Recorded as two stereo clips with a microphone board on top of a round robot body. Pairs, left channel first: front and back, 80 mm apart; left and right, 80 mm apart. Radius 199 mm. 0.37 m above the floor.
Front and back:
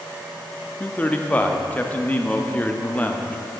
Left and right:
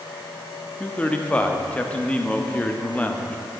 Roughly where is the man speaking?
Ahead left.